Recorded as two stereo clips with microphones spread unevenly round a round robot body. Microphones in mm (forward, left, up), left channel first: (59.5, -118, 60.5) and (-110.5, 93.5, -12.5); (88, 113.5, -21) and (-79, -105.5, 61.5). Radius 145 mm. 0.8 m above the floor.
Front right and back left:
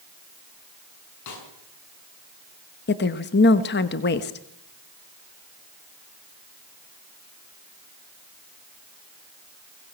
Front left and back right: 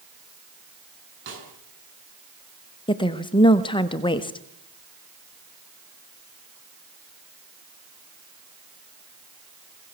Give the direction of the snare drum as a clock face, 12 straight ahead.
3 o'clock.